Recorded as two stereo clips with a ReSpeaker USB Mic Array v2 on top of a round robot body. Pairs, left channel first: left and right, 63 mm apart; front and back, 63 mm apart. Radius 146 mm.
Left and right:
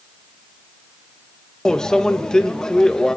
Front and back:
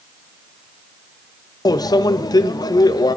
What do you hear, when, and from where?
1.6 s a microwave: 10° left, 0.6 m